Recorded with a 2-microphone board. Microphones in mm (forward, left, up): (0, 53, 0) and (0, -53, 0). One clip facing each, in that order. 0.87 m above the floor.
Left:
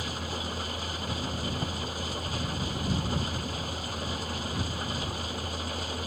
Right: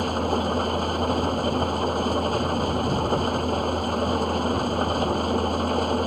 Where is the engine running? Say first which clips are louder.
Right 12 dB; 50° right (ahead or behind).